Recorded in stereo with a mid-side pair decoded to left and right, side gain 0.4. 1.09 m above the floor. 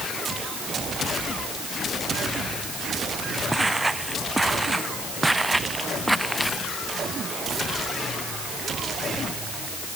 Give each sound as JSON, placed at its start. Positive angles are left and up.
{"t": 3.5, "sound": "footsteps", "azimuth_deg": -15}